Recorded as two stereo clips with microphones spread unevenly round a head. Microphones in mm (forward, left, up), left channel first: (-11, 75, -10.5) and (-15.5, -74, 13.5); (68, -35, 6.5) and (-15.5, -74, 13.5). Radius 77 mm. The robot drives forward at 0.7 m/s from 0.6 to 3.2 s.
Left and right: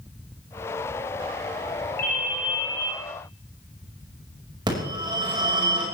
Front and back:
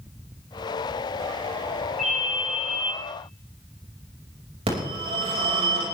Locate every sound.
2.0 s a ringtone: 115° left, 4 m; by 2.9 s 125° left, 4.5 m
4.7 s a phone ringing: 150° right, 5.5 m